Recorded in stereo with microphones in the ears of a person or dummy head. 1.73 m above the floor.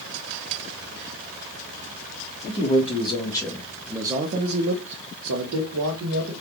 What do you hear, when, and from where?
2.5 s a man speaking: 35° left (ahead or behind), 1.2 m; by 6.3 s 75° right (ahead or behind), 1.4 m